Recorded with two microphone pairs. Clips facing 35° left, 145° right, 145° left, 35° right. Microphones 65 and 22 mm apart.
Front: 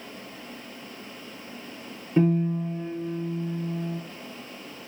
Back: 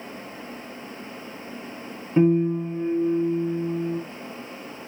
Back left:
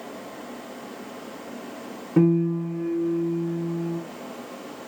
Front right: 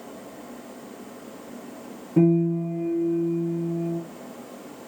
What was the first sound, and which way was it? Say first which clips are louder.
A piano: back 4 dB, even; 135° left.